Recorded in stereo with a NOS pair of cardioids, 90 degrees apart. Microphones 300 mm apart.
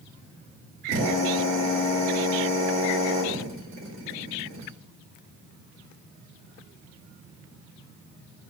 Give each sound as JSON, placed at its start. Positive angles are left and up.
{"t": 0.9, "sound": "a drill", "azimuth_deg": -60, "distance_m": 4.0}